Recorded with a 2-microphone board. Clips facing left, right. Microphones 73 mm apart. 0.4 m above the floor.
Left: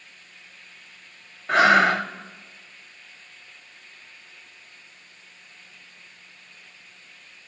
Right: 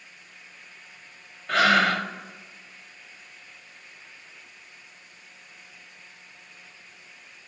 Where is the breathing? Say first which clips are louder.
Left 4 dB; 25° left (ahead or behind), 0.6 m.